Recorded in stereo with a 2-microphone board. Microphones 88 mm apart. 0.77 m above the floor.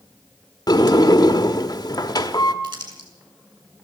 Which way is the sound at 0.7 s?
50° left (ahead or behind).